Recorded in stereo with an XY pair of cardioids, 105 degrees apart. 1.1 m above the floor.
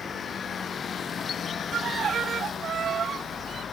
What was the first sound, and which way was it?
A violin, 45° right.